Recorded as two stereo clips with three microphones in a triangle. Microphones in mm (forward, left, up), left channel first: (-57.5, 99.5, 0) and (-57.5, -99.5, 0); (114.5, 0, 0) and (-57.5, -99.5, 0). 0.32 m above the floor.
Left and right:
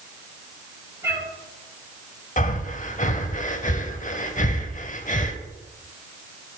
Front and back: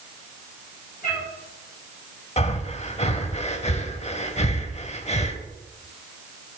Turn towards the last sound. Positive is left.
turn(degrees=65)